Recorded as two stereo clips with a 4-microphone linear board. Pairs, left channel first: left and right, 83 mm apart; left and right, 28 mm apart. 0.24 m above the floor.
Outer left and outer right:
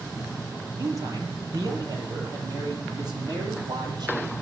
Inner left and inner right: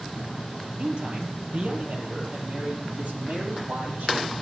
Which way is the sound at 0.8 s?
45° right (ahead or behind).